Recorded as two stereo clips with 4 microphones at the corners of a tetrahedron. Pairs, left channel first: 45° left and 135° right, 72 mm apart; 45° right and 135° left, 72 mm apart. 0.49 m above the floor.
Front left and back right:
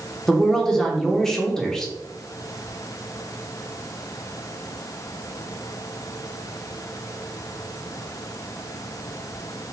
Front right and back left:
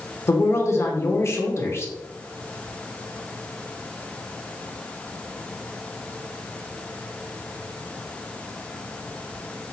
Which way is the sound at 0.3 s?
35° right.